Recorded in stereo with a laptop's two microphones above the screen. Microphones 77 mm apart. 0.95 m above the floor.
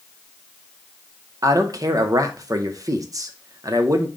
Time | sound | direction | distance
1.4 | a man speaking | 50° right (ahead or behind) | 0.6 m